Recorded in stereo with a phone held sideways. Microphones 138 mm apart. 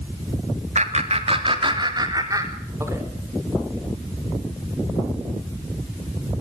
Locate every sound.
0.8 s laughter: 55° right (ahead or behind), 2.5 m; by 3.0 s 20° right (ahead or behind), 5 m